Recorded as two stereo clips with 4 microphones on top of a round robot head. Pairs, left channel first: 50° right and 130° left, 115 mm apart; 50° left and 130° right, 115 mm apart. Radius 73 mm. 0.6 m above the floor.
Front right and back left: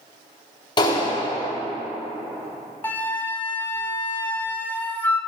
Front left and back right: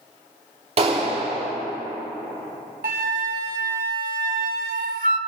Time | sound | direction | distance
0.8 | a clap | 100° right | 5 m
2.8 | a flute | 120° right | 0.6 m